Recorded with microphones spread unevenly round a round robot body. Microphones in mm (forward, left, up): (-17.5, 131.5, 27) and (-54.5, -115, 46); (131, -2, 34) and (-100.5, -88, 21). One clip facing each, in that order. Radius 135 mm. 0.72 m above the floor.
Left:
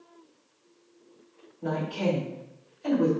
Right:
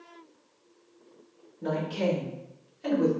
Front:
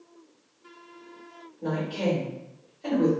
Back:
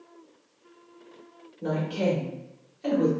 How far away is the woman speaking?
About 1.8 m.